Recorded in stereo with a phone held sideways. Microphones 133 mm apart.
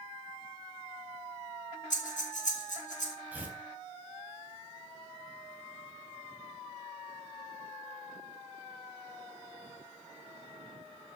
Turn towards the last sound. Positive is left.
turn(degrees=-15)  # may be behind; listen again after turning